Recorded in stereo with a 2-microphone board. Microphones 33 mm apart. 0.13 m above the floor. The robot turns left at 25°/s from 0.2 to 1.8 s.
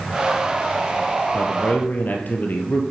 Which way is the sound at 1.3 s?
60° left (ahead or behind).